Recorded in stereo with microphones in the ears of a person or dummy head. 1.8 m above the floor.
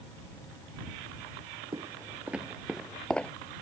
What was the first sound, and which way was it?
Footsteps, 20° right (ahead or behind).